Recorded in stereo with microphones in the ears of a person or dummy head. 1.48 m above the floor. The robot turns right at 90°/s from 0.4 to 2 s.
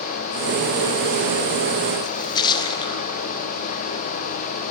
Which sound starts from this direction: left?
A splash, at 2.0 s.